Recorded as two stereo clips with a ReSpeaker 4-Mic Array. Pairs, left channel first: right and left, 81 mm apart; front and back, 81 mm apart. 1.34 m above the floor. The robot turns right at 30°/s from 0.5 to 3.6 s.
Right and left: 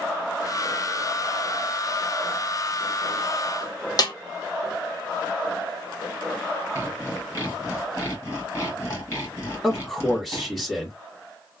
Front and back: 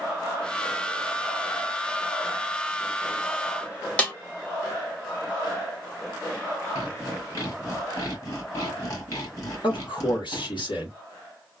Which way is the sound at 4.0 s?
70° right.